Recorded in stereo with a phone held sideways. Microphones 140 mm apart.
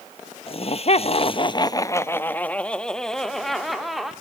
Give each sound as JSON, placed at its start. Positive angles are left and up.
{"t": 0.5, "sound": "laughter", "side_deg": 45, "distance_m": 0.6}